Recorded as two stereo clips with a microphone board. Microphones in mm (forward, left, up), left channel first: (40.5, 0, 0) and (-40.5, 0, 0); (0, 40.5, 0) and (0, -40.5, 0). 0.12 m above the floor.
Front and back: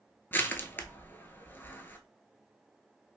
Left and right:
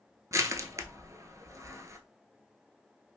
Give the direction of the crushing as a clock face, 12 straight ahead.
2 o'clock.